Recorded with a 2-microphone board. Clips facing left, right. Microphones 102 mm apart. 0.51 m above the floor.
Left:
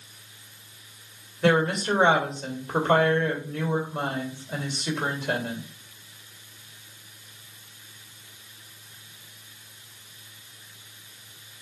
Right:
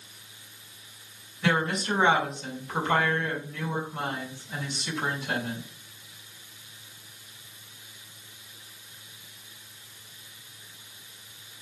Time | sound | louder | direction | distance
1.4 | a woman speaking | left 5 dB | 60° left (ahead or behind) | 1.9 m